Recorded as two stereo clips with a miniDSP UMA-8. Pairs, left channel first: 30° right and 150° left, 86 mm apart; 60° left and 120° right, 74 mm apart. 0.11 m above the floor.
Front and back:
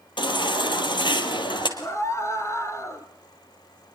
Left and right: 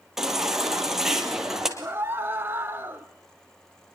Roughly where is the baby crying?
Ahead right.